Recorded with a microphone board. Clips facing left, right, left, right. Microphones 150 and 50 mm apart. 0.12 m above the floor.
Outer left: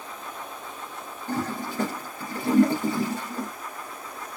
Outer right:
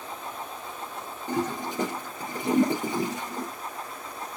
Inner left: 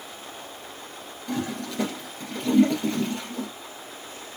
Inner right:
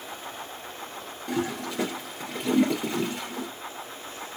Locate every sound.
1.3 s a toilet flushing: 20° right (ahead or behind), 1.7 m